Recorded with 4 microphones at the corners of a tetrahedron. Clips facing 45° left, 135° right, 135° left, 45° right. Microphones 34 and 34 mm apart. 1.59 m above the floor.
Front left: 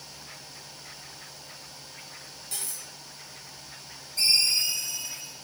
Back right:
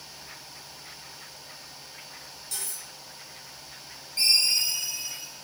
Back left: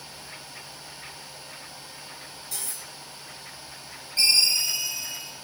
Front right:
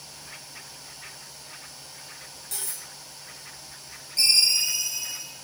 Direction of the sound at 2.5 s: 35° right.